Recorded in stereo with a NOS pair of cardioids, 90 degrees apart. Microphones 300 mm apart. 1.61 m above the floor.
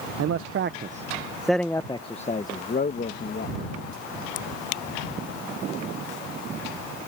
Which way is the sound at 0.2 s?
55° right.